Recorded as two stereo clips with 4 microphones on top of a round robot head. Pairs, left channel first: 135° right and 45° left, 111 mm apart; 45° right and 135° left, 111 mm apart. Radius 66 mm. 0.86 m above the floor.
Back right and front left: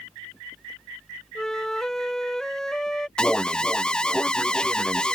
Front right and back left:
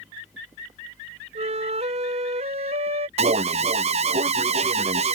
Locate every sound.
1.4 s a flute: 140° left
3.2 s an alarm: 145° left